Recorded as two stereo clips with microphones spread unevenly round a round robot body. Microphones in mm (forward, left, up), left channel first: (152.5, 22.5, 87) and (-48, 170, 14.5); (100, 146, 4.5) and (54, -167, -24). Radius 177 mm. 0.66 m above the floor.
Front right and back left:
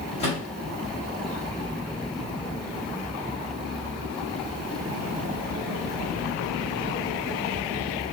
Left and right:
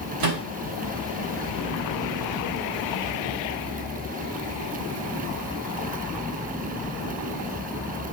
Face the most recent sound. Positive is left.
turn(degrees=-110)